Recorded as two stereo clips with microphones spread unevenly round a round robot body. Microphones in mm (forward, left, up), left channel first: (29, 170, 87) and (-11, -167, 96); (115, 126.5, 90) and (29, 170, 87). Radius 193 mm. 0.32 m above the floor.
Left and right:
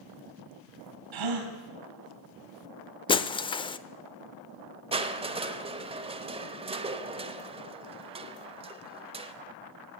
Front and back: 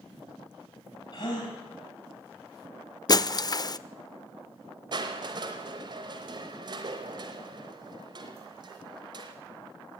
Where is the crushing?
170° right, 0.8 m.